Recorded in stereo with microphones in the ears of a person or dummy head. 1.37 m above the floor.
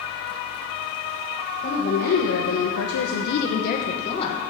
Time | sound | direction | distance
1.6 | a woman speaking | 40° left (ahead or behind) | 1.3 m